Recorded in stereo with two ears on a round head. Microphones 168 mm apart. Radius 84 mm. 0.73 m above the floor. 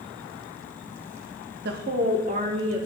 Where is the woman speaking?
55° right (ahead or behind), 0.7 m; by 2.9 s 40° right (ahead or behind), 2.5 m.